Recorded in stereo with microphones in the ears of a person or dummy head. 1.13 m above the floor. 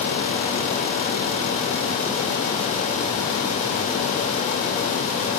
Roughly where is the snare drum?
No snare drum in this recording.